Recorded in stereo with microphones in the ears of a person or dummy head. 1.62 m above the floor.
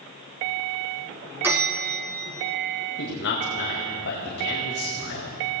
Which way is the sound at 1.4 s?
15° right (ahead or behind).